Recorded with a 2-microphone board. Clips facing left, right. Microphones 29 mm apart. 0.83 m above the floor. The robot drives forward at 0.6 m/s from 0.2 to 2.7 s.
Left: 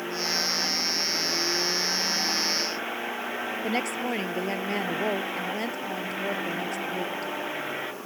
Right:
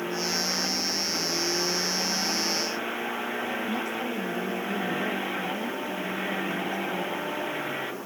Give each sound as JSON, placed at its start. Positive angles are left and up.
{"t": 3.6, "sound": "a woman speaking", "side_deg": 80}